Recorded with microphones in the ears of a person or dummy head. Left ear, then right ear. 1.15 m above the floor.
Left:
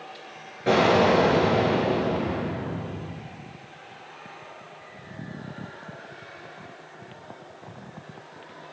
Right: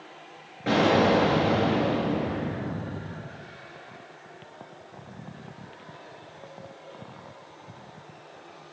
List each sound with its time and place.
0.7 s an explosion: 5° right (ahead or behind), 5.5 m